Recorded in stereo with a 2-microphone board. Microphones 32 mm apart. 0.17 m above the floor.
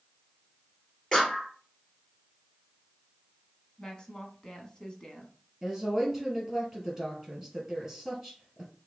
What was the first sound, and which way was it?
A clap, 5° left (ahead or behind).